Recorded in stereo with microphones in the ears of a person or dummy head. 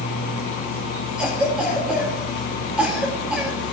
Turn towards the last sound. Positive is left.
turn(degrees=0)  # may be behind; listen again after turning